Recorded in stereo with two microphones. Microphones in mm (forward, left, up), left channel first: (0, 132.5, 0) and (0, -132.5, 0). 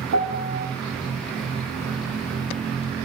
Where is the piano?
80° right, 0.6 m.